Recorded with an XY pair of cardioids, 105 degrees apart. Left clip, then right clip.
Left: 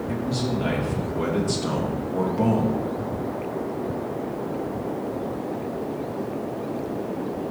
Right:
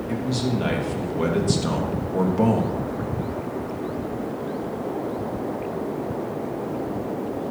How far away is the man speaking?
About 2.5 m.